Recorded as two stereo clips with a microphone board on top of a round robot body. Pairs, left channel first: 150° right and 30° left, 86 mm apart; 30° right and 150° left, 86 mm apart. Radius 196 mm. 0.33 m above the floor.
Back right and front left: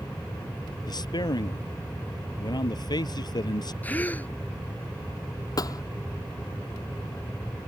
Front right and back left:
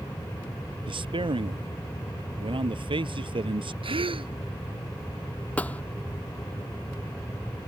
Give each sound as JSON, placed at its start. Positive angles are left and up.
{"t": 0.9, "sound": "a man speaking", "azimuth_deg": 170}
{"t": 3.8, "sound": "a gasp", "azimuth_deg": 140}
{"t": 5.6, "sound": "a thud", "azimuth_deg": -105}